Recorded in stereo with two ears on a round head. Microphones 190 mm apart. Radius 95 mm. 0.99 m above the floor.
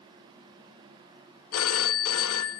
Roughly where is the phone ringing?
Left.